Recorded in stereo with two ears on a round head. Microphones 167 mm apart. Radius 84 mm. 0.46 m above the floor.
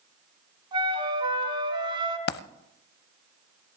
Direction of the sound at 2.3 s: 55° left (ahead or behind).